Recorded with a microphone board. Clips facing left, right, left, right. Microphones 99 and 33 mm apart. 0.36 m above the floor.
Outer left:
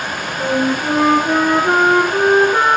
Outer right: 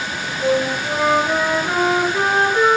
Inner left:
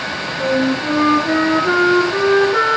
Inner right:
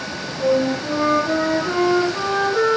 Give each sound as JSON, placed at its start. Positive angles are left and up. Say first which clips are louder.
{"t": 0.4, "sound": "a flute", "louder": "outer left 1 dB, inner left 1 dB", "side_deg": 75, "distance_m": 5.0}